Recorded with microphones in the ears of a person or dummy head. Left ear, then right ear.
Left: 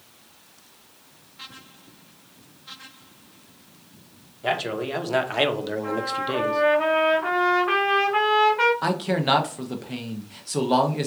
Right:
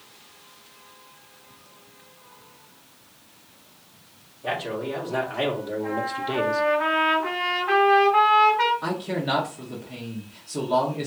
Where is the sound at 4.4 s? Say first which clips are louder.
Left 3 dB; 75° left (ahead or behind), 1.3 m; by 6.6 s 10° right (ahead or behind), 0.5 m.